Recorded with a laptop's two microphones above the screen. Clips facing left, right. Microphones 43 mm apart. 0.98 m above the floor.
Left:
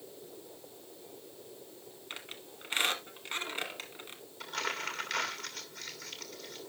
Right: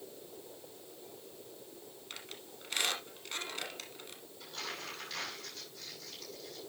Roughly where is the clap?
I don't hear a clap.